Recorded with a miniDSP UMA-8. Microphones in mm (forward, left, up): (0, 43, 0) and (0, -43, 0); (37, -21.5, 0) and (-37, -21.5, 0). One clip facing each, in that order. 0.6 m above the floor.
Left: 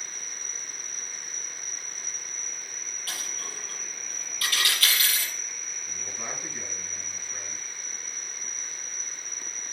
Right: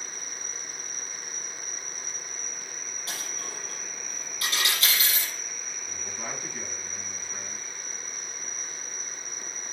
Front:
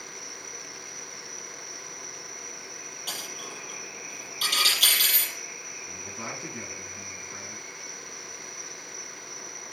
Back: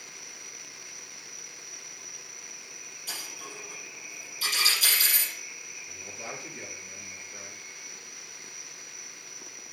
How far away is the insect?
About 3.5 m.